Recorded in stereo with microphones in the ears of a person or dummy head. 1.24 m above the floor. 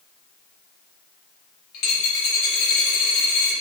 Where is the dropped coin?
50° left (ahead or behind), 1.2 m.